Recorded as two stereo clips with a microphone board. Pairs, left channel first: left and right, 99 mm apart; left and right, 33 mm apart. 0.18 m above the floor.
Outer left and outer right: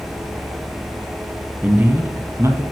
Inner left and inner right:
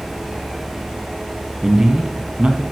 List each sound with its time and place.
1.6 s a man speaking: 15° right (ahead or behind), 1.2 m; by 2.6 s 30° right (ahead or behind), 1.3 m